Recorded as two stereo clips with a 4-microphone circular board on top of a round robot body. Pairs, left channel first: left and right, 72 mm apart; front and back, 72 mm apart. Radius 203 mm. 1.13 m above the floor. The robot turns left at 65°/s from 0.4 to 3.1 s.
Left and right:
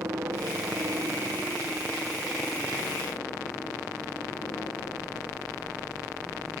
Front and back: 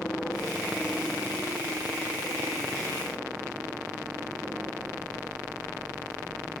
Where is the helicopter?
70° right; by 6.6 s 115° left.